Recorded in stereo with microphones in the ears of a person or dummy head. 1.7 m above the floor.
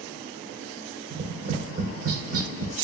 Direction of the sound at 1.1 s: 55° right (ahead or behind).